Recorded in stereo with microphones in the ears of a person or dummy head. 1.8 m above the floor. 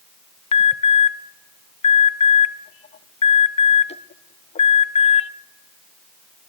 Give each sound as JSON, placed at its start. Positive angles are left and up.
{"t": 0.5, "sound": "an alarm", "side_deg": 30, "distance_m": 0.7}